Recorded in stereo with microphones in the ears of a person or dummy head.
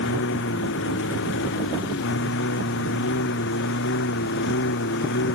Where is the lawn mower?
65° left (ahead or behind); by 5.3 s 60° left (ahead or behind).